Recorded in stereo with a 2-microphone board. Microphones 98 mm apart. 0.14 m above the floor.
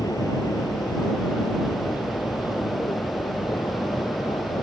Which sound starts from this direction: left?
An aircraft, at 0.0 s.